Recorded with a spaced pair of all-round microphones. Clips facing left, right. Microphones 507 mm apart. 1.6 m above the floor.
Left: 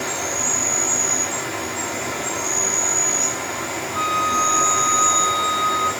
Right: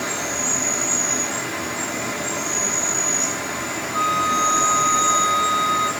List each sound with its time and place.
0.0 s an insect: 30° right (ahead or behind), 3.5 m
3.9 s a flute: 20° right (ahead or behind), 1.4 m